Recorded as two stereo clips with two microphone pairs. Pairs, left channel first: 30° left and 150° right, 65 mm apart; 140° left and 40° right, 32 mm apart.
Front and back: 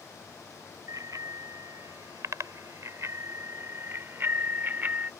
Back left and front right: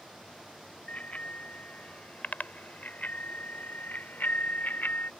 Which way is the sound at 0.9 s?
Straight behind.